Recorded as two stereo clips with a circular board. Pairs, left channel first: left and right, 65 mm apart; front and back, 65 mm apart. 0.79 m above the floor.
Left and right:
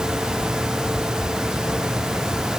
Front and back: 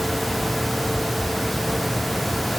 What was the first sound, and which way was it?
Only background noise.